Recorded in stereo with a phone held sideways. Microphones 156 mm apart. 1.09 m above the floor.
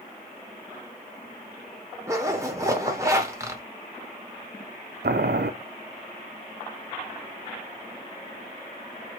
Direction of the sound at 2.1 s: 20° right (ahead or behind).